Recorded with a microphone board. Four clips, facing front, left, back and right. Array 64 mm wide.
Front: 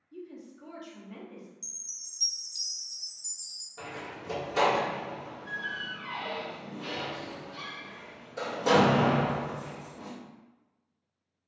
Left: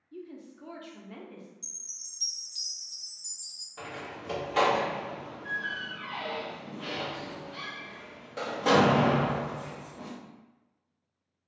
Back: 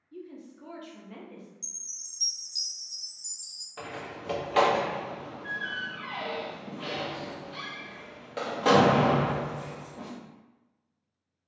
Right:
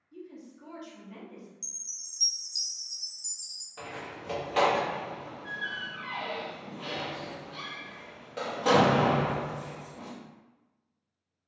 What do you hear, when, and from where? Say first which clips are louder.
0.1 s a woman speaking: left 2 dB, back 1 dB; 115° left, 0.5 m
1.6 s a chime: even, back 1 dB; 85° left, 0.6 m
3.8 s a door slam: even, back 2 dB; 175° right, 0.6 m